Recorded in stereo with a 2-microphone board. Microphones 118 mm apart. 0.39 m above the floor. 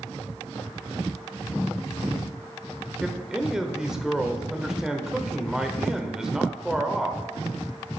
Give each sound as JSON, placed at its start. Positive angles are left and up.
{"t": 3.0, "sound": "a man speaking", "side_deg": -5, "distance_m": 0.9}